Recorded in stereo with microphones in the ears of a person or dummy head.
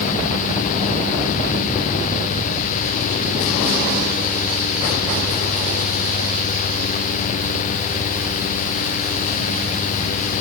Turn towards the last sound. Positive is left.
No sound to turn to.